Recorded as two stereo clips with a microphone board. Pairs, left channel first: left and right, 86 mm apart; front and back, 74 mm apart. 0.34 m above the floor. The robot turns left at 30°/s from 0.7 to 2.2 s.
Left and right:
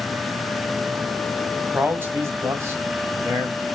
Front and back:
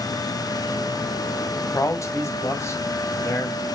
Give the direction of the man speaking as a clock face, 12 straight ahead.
1 o'clock.